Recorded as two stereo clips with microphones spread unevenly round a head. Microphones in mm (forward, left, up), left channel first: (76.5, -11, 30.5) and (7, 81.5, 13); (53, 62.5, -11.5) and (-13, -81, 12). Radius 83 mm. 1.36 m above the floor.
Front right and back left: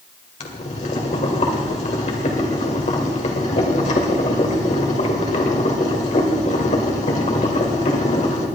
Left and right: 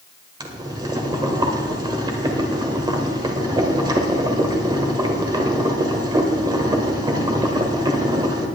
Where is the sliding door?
No sliding door in this recording.